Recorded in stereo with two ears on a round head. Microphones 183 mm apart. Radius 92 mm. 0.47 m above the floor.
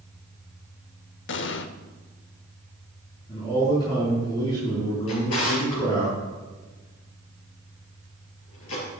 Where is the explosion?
60° left (ahead or behind), 0.7 m.